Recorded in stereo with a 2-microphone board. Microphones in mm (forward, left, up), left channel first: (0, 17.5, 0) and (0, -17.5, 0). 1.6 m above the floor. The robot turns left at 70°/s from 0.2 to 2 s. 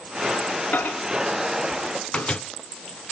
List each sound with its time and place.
0.7 s a microwave: 60° left (ahead or behind), 0.7 m; by 2.4 s 30° left (ahead or behind), 0.7 m